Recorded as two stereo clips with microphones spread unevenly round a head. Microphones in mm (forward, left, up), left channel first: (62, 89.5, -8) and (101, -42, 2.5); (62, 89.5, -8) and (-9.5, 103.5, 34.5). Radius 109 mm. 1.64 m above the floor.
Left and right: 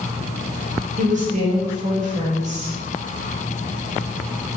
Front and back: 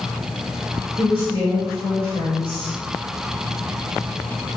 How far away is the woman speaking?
About 0.9 m.